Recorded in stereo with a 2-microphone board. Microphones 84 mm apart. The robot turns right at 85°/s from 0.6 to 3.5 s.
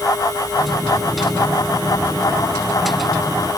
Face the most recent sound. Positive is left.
No sound to turn to.